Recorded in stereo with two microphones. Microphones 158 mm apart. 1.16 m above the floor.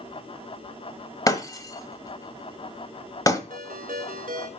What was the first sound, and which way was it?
Breaking glass, 20° left (ahead or behind).